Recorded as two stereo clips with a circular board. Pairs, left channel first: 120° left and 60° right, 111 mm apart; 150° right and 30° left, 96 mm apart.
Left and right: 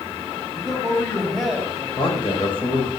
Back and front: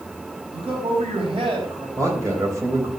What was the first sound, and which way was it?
A man speaking, 30° left.